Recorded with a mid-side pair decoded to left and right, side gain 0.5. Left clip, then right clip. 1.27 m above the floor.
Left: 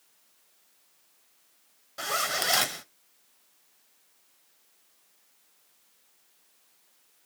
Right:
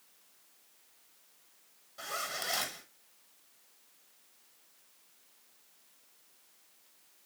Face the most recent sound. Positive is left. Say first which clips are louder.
# left 9 dB
turn(degrees=60)